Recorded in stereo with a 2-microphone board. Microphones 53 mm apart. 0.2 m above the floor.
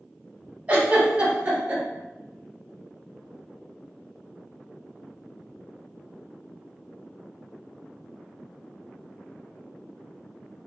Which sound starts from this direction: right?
A giggle, at 0.7 s.